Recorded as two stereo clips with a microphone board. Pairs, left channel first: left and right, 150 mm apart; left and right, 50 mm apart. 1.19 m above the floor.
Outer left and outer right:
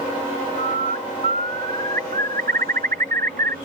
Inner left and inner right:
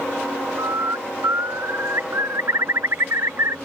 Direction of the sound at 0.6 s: 70° right (ahead or behind).